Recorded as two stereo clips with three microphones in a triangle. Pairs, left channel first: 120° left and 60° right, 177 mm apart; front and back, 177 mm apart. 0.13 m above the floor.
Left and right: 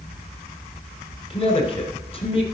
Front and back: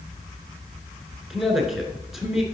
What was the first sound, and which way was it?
A man speaking, 95° left.